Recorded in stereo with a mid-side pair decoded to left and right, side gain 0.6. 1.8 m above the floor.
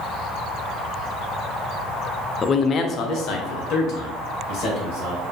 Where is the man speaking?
30° left, 0.5 m; by 5.2 s 75° left, 2.5 m.